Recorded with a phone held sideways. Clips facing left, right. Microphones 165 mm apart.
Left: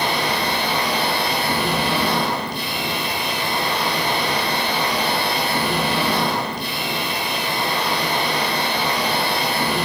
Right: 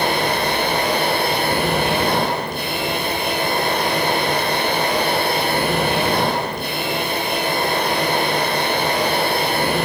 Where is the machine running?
50° right (ahead or behind), 4.5 m.